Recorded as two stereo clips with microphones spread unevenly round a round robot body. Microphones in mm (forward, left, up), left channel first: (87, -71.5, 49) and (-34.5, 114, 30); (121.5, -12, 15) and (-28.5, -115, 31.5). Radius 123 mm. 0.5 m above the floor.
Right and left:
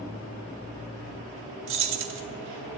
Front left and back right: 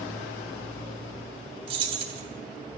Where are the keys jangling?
145° left, 1.1 m.